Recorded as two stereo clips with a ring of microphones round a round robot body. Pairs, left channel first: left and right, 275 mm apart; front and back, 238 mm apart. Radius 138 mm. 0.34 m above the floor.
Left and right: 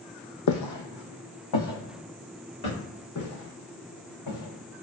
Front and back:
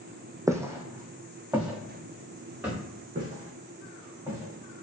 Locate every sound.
0.5 s footsteps: 105° left, 0.7 m; by 2.8 s 95° left, 2 m
3.1 s footsteps: 120° left, 1.9 m; by 4.8 s 95° left, 1.6 m